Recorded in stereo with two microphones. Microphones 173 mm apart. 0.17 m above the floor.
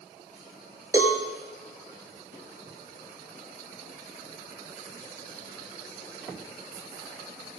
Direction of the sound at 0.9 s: 20° right (ahead or behind).